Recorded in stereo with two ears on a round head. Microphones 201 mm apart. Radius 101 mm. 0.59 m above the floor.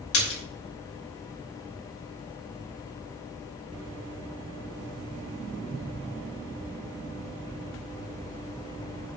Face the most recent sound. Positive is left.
turn(degrees=65)  # may be behind; listen again after turning